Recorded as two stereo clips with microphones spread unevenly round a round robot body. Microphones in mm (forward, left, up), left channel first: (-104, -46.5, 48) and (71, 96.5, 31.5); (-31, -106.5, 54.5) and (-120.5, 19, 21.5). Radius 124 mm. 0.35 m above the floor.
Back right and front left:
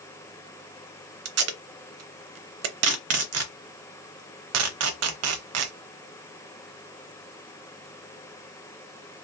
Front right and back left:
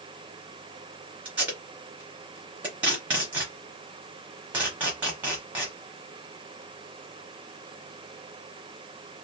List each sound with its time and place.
1.2 s tape being pulled: 45° left, 0.7 m